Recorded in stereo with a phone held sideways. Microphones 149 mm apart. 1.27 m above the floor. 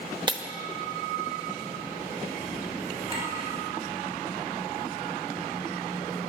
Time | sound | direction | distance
0.3 | breaking glass | 30° right (ahead or behind) | 0.7 m
3.1 | a clink | 35° right (ahead or behind) | 3.5 m